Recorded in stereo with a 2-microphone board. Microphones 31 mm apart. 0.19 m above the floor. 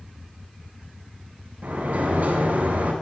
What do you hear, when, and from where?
1.6 s a sliding door: 65° right (ahead or behind), 4 m